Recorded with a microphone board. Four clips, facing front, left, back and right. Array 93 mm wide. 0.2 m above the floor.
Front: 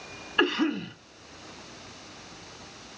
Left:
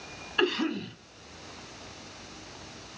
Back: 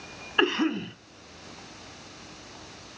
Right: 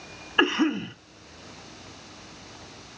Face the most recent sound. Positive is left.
turn(degrees=-110)